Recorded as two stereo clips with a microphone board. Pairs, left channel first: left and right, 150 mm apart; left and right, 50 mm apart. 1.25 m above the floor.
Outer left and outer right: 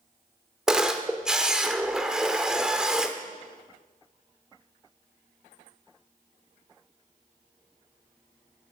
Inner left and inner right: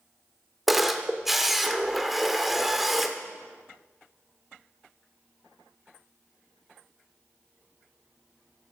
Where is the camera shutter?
5° right (ahead or behind), 1.1 m.